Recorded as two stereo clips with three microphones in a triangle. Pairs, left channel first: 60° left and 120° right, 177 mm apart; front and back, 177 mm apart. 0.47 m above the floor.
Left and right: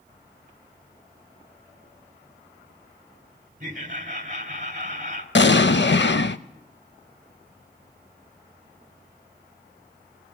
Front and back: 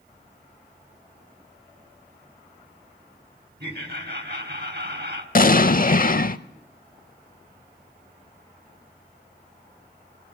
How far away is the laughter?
About 2.5 m.